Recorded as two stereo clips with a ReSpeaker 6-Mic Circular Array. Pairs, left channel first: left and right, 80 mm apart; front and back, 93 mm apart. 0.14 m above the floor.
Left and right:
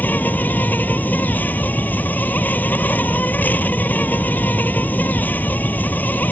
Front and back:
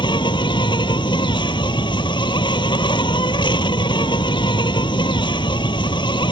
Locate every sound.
0.0 s an insect: 25° left